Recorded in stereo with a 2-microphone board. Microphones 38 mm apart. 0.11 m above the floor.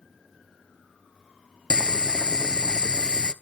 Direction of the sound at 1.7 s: 25° left (ahead or behind).